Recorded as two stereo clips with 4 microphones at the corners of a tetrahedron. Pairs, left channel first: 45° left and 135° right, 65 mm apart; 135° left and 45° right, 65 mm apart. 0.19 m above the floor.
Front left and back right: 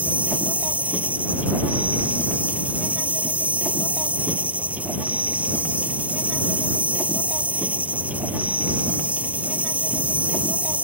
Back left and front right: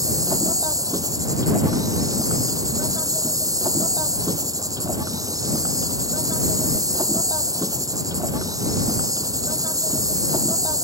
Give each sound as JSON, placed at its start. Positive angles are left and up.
{"t": 0.0, "sound": "an insect", "azimuth_deg": -65}